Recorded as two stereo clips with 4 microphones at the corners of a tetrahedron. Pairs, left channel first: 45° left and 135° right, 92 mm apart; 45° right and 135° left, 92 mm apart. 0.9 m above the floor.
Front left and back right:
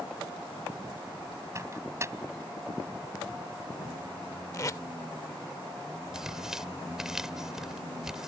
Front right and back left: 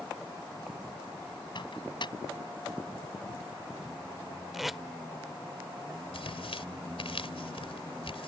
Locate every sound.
1.6 s a microwave: 75° right
4.5 s tape being pulled: 50° left
6.1 s tearing paper: 50° right